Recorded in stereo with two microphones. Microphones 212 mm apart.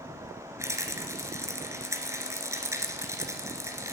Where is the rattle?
15° right (ahead or behind), 1.7 m.